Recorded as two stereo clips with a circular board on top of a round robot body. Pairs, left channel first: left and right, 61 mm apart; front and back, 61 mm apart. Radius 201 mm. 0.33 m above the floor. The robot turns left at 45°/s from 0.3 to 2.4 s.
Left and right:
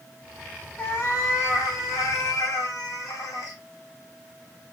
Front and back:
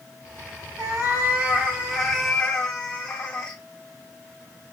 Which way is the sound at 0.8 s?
150° left.